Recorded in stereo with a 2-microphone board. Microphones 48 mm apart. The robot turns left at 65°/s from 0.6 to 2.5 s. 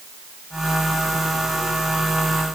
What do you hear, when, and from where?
Only background noise.